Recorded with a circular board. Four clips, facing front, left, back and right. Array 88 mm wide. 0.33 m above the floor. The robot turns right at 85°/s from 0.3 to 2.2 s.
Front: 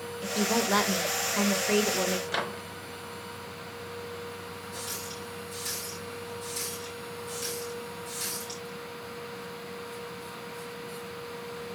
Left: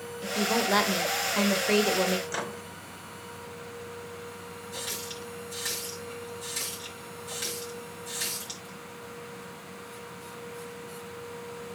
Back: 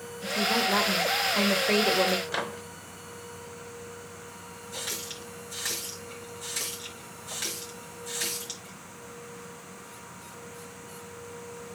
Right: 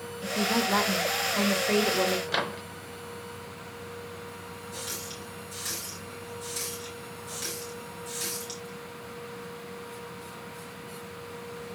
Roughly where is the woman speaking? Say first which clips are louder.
Even, even; ahead left.